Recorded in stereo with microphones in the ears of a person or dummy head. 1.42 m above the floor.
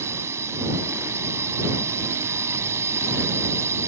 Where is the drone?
15° right (ahead or behind).